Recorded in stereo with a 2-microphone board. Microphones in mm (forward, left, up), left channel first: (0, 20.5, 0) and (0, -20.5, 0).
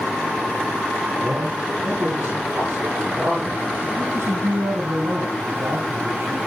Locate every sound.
1.2 s a man speaking: 35° right (ahead or behind), 6.5 m; by 3.9 s 40° right (ahead or behind), 9 m
4.0 s a man speaking: 85° right, 4.5 m